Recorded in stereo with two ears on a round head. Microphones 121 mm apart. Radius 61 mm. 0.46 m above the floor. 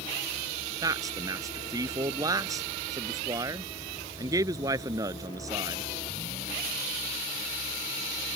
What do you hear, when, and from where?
0.8 s a man speaking: 25° right (ahead or behind)